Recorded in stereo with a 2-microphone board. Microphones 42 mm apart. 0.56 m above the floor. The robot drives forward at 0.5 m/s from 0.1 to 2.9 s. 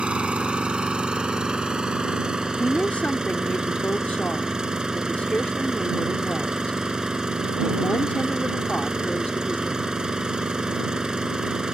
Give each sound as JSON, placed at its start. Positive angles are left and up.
{"t": 0.0, "sound": "an engine running", "side_deg": -30}
{"t": 2.6, "sound": "a woman speaking", "side_deg": 40}